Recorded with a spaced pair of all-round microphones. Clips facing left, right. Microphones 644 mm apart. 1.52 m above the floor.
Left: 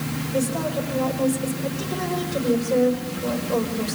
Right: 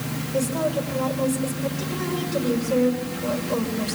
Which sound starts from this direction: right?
A woman speaking, at 0.3 s.